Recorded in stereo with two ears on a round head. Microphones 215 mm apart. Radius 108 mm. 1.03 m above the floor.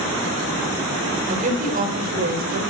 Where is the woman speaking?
35° right (ahead or behind), 5 m; by 2.6 s 45° right (ahead or behind), 4.5 m.